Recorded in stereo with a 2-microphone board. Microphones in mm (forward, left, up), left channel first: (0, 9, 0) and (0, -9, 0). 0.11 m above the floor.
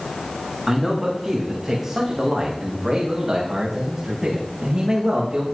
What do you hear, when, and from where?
0.7 s a man speaking: 10° right (ahead or behind), 7.5 m; by 5.4 s 45° right (ahead or behind), 7 m